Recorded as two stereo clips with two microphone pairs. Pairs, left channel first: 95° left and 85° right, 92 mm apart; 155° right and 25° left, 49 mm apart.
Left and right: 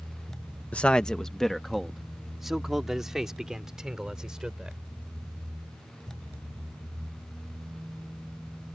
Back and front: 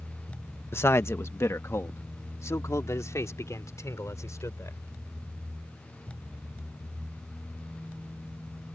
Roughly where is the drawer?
No drawer in this recording.